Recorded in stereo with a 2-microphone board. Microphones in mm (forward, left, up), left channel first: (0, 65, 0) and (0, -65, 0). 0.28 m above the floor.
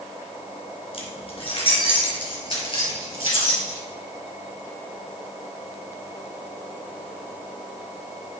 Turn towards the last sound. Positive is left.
turn(degrees=40)  # may be behind; listen again after turning